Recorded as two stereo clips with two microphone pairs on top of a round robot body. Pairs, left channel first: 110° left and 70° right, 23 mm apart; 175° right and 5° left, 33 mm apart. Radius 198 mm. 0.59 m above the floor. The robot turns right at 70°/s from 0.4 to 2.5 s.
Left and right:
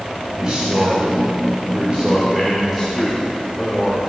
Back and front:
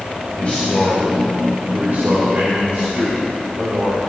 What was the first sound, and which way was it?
A man speaking, 135° right.